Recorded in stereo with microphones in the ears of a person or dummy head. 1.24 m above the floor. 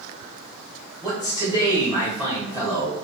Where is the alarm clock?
I don't hear an alarm clock.